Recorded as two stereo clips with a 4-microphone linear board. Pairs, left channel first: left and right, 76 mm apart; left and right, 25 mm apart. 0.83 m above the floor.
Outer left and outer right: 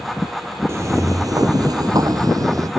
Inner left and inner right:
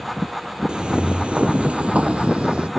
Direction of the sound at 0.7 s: 40° right (ahead or behind).